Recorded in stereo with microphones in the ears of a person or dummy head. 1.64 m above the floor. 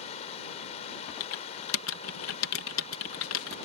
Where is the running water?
35° left (ahead or behind).